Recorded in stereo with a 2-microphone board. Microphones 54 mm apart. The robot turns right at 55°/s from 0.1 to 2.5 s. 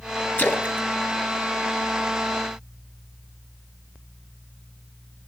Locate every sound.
0.4 s a splash: 40° left (ahead or behind), 1.1 m; by 2.5 s 30° right (ahead or behind), 1.1 m